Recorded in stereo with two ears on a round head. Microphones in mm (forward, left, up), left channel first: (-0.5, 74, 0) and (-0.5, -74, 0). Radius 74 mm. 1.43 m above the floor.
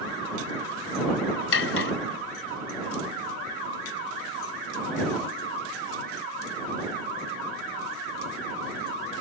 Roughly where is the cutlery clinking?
Left.